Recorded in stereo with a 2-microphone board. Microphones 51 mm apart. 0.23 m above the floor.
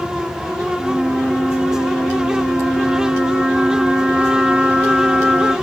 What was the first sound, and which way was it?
A flute, 25° right (ahead or behind).